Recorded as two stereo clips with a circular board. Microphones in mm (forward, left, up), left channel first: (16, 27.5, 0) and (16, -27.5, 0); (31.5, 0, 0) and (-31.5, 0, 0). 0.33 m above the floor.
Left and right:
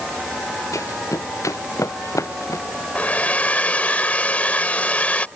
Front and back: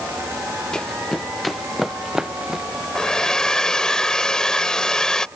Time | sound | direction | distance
0.7 | running footsteps | 80° left | ?
3.0 | a hair dryer | 70° left | ?